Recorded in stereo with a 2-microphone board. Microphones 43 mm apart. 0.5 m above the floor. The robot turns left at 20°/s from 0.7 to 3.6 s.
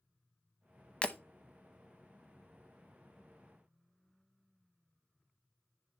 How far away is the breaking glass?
About 0.6 m.